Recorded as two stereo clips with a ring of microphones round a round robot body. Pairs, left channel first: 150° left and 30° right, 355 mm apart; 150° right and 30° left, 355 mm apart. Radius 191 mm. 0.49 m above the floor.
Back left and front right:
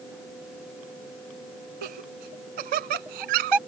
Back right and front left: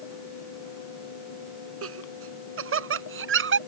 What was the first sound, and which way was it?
Laughter, 25° right.